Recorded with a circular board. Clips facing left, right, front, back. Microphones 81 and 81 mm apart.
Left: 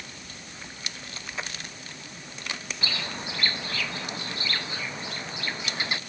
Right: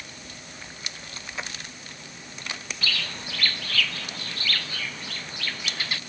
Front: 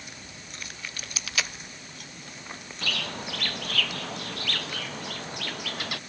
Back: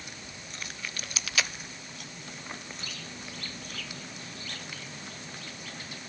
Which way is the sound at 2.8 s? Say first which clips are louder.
Right 2 dB, front 9 dB; 20° left.